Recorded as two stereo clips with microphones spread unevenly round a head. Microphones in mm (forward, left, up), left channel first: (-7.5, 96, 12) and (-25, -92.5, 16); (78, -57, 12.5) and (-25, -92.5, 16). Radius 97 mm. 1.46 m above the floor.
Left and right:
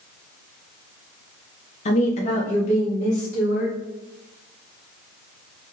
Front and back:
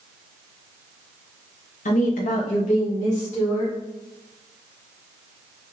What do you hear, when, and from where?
1.9 s a woman speaking: 25° left, 0.6 m; by 3.8 s 30° left, 2.5 m